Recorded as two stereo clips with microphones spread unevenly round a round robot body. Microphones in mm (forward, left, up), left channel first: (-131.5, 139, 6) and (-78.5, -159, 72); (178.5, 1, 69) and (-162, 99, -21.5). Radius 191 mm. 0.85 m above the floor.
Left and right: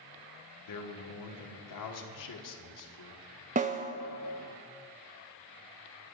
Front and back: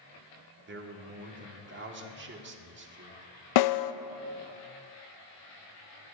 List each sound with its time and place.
0.7 s a man speaking: 105° left, 1.6 m
3.5 s a snare drum: 10° right, 0.5 m